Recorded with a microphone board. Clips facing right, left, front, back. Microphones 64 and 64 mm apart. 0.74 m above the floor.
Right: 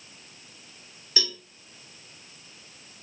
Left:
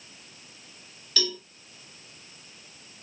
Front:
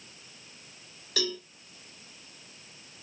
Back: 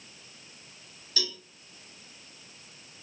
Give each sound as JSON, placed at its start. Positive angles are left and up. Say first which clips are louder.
{"t": 1.2, "sound": "a cowbell", "louder": "left 2 dB, front 5 dB", "azimuth_deg": -20, "distance_m": 1.4}